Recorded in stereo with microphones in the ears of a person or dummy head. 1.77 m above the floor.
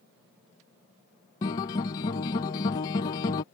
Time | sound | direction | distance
1.4 | a guitar | 20° left (ahead or behind) | ?